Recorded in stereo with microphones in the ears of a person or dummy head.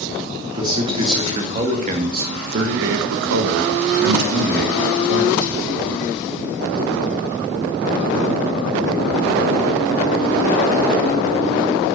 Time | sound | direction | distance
0.4 | a man speaking | 20° right (ahead or behind) | 2.5 m